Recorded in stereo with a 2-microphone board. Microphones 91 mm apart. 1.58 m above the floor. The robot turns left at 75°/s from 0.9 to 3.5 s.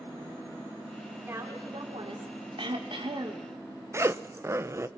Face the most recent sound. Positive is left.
turn(degrees=-30)  # may be behind; listen again after turning